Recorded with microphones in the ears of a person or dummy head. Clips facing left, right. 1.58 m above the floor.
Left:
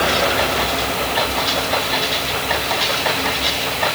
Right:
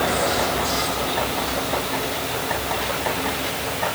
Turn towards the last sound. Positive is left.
No sound to turn to.